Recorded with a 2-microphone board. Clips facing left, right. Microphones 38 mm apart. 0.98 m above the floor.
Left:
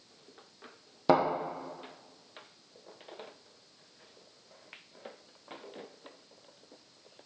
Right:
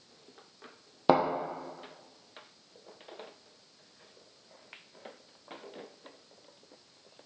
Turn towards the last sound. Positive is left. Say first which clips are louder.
# right 1 dB
turn(degrees=-25)  # may be behind; listen again after turning